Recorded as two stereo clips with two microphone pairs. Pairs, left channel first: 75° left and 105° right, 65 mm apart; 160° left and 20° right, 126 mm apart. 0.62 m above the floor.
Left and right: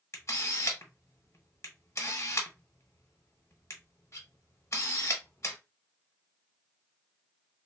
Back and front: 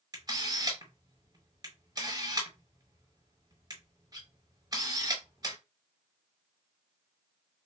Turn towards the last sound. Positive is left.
turn(degrees=35)